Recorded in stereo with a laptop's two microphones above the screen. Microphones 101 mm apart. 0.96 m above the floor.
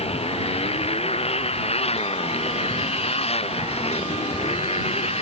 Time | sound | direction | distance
0.0 | a motorcycle | 85° left | ?